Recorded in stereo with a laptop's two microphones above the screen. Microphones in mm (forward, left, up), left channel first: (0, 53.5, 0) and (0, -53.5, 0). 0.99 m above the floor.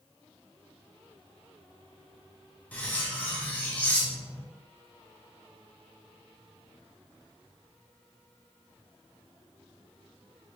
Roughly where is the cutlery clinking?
Centre.